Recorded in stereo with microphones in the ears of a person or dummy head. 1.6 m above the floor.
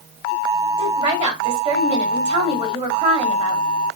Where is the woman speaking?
30° right (ahead or behind), 3.5 m.